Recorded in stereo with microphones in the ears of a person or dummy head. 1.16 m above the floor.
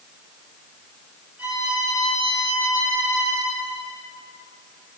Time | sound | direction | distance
1.4 | a violin | 10° right (ahead or behind) | 2.5 m